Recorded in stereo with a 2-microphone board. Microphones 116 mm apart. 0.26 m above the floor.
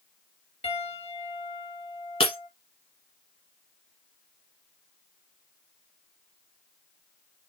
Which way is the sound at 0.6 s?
60° left (ahead or behind).